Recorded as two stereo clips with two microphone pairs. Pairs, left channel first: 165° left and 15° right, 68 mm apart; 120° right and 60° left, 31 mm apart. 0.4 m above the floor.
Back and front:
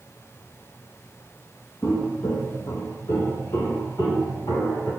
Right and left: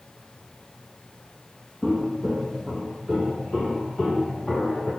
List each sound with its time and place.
1.8 s footsteps: 160° left, 0.8 m; by 4.9 s 155° left, 3.5 m